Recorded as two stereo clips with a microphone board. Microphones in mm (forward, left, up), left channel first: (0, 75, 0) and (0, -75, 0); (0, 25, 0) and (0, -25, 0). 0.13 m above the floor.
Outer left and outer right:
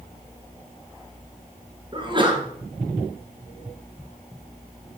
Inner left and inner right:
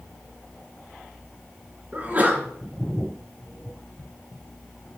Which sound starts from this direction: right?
A sneeze, at 1.9 s.